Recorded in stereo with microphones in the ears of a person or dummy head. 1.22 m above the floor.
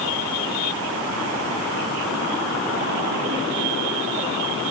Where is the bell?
I don't hear a bell.